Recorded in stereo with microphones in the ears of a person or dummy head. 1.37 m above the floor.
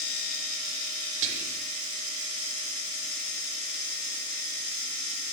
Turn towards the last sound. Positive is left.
turn(degrees=-40)  # may be behind; listen again after turning